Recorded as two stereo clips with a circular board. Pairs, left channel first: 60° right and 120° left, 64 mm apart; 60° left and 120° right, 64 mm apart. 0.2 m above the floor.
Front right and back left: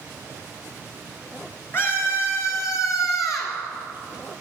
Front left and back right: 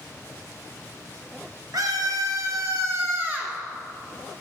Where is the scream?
110° right, 3 m; by 3.6 s 60° right, 2.5 m.